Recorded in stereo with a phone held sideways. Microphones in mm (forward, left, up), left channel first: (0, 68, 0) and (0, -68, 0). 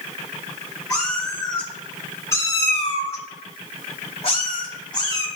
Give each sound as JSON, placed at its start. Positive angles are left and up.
{"t": 0.9, "sound": "a cat meowing", "side_deg": 5, "distance_m": 3.0}